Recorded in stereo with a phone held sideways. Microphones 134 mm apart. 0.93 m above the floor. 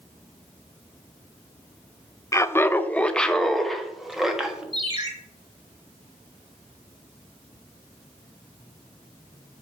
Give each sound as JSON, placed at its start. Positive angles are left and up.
{"t": 2.3, "sound": "laughter", "side_deg": 25, "distance_m": 0.5}
{"t": 4.7, "sound": "a ringtone", "side_deg": -40, "distance_m": 2.5}